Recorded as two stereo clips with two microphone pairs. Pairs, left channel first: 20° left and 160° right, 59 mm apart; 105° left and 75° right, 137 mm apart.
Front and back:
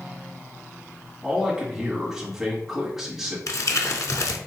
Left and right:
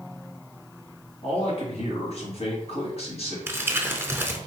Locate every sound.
1.2 s a man speaking: 115° left, 1.7 m
3.5 s crumpling: 5° right, 0.7 m